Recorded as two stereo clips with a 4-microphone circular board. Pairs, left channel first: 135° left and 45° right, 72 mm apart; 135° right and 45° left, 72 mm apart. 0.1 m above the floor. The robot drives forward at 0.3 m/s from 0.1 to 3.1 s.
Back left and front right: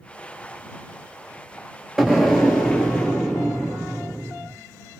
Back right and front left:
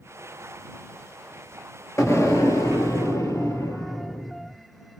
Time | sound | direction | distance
2.0 | an explosion | 125° right | 1.1 m